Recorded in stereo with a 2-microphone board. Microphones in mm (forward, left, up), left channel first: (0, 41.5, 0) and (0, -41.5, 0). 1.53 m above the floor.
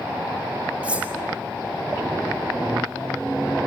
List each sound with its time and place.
0.8 s cutlery clinking: 15° right (ahead or behind), 3.5 m